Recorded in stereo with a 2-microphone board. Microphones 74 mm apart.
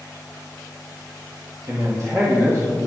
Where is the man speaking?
50° right (ahead or behind), 1.9 m; by 2.8 s 30° right (ahead or behind), 1.7 m.